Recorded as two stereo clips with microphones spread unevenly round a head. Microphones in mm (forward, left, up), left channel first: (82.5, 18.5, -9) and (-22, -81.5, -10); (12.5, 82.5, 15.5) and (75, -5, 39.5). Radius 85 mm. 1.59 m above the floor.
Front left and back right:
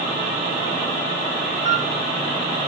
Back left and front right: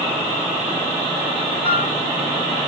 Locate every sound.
1.6 s a flute: 15° right, 3.5 m